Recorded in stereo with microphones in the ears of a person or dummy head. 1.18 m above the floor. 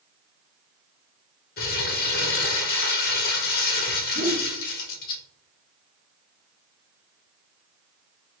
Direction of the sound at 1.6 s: 45° left (ahead or behind).